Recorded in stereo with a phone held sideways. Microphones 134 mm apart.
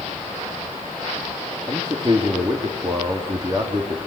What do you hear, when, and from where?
1.7 s a man speaking: 30° right (ahead or behind), 3.5 m